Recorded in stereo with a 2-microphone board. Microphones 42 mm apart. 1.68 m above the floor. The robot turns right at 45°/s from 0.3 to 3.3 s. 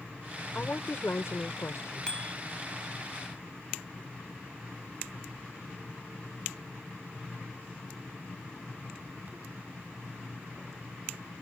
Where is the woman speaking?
40° left; by 2.2 s 110° left.